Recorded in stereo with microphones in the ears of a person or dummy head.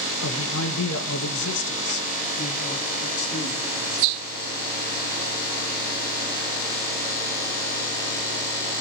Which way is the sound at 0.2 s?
70° left (ahead or behind).